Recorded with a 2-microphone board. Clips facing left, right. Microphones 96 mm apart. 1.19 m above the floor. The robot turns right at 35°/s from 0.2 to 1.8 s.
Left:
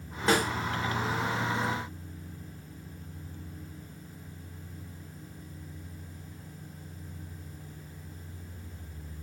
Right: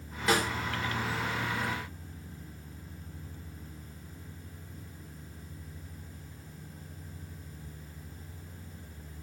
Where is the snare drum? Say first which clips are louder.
Left 2 dB; 30° left (ahead or behind), 4 m; by 0.5 s 40° left (ahead or behind), 4 m.